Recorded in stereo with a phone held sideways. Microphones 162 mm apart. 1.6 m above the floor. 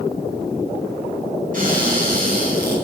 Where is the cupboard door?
50° right (ahead or behind), 9.5 m.